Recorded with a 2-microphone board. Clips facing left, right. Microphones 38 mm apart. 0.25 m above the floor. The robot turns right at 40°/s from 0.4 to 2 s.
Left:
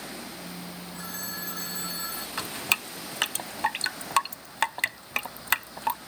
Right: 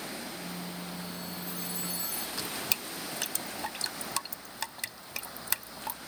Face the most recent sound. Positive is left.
turn(degrees=50)  # may be behind; listen again after turning